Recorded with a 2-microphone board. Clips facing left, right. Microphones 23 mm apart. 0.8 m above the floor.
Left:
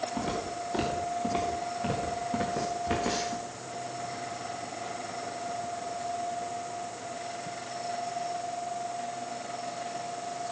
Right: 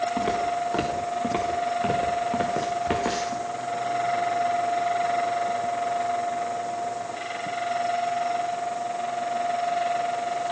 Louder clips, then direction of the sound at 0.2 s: Right 8 dB; 70° right (ahead or behind).